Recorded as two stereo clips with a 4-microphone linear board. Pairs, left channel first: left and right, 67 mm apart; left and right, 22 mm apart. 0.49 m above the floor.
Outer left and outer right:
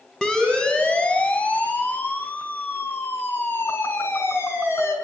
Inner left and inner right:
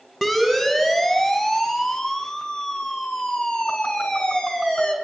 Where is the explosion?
No explosion in this recording.